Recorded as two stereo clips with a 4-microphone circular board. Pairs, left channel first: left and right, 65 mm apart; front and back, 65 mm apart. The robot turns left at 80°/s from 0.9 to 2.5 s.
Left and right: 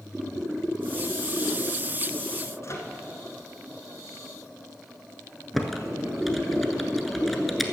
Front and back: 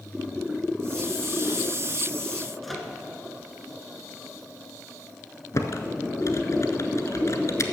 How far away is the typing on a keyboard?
About 0.9 m.